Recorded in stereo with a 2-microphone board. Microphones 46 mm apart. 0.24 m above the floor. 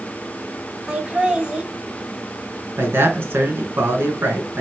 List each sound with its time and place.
0.9 s laughter: 20° right (ahead or behind), 1.7 m
2.8 s a man speaking: 55° right (ahead or behind), 3 m